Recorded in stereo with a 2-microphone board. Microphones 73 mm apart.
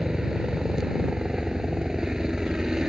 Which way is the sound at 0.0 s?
10° right (ahead or behind).